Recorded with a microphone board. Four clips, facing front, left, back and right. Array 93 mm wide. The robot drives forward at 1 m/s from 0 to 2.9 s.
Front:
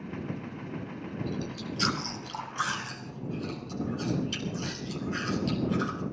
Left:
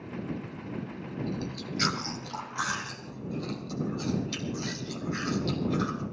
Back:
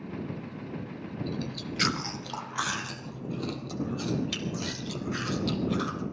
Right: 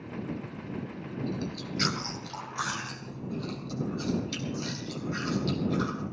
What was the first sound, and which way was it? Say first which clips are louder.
Chewing: right 1 dB, back 1 dB; straight behind.